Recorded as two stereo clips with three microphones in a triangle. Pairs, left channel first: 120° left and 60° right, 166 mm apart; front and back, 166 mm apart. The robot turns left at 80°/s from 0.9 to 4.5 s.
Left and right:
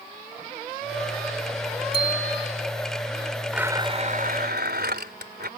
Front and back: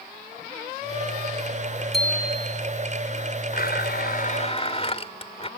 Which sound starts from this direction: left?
A bicycle bell, at 1.9 s.